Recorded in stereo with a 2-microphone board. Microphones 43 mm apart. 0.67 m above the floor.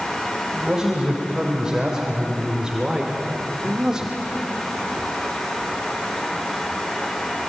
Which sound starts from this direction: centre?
A man speaking, at 0.5 s.